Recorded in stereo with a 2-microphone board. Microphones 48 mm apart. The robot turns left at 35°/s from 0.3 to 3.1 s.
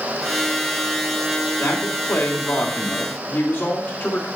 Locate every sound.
1.6 s a man speaking: 105° left, 3.5 m; by 4.3 s 50° left, 3.5 m